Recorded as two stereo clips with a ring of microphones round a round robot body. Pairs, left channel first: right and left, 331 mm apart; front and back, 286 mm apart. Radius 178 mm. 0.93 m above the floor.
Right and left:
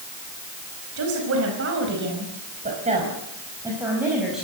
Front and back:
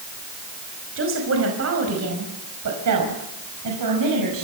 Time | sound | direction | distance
1.0 | a woman speaking | 135° left | 5.5 m